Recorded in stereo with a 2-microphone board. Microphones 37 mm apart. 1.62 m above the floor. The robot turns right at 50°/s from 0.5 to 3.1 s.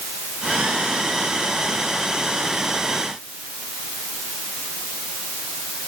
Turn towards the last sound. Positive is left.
No sound to turn to.